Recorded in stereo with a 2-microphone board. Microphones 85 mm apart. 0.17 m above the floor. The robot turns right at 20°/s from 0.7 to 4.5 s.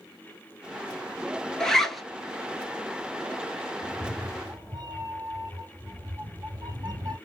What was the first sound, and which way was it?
A zipper, 5° left (ahead or behind).